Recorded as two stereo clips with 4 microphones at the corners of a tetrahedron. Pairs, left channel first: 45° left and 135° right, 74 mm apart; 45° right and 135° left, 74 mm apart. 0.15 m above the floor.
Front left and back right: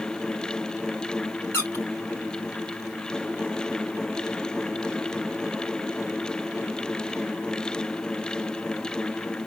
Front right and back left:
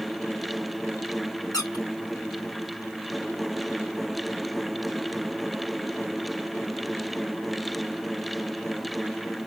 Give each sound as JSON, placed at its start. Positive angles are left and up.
{"t": 1.5, "sound": "a squeak", "azimuth_deg": -10, "distance_m": 3.0}